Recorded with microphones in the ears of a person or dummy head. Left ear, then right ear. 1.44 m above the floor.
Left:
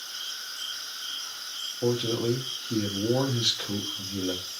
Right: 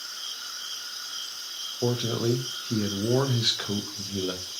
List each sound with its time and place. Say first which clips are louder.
1.8 s a man speaking: even; 15° right (ahead or behind), 0.6 m